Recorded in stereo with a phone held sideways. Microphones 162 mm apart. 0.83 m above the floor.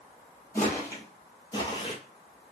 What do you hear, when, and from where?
0.6 s footsteps: 15° left (ahead or behind), 1.3 m; by 2.0 s 30° left (ahead or behind), 0.9 m